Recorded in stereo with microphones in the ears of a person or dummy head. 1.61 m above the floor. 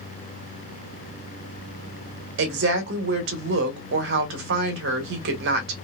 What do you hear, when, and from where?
2.4 s a woman speaking: 60° right (ahead or behind), 1.4 m